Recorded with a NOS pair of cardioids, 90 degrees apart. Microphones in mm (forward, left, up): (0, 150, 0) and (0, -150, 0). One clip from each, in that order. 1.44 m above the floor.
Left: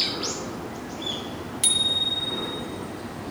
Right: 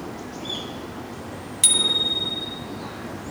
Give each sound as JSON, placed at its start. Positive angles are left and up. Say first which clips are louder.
{"t": 1.6, "sound": "a bicycle bell", "louder": "right 3 dB", "azimuth_deg": -15, "distance_m": 2.5}